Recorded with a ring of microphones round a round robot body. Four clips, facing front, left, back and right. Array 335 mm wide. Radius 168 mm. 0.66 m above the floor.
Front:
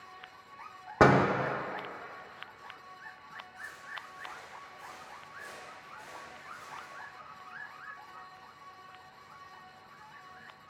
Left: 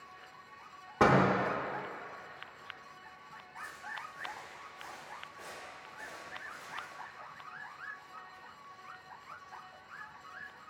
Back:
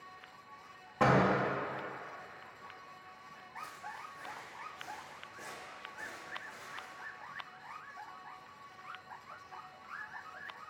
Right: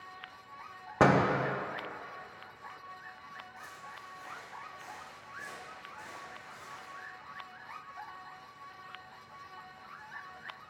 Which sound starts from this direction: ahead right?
A door slam, at 1.0 s.